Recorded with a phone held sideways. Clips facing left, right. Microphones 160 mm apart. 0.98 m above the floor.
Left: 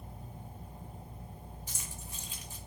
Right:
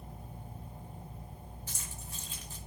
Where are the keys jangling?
15° left (ahead or behind), 0.5 m.